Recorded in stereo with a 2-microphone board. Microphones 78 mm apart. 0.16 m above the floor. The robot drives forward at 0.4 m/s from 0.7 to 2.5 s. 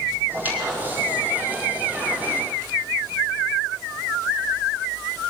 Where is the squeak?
20° right (ahead or behind), 6.5 m; by 2.5 s 25° right (ahead or behind), 6 m.